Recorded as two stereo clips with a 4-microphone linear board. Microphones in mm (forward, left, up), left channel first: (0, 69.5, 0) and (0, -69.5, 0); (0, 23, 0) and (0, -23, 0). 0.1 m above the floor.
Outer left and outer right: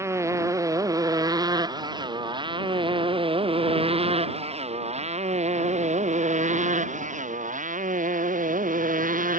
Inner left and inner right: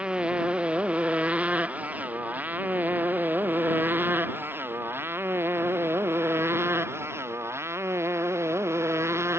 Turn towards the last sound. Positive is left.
turn(degrees=-75)  # may be behind; listen again after turning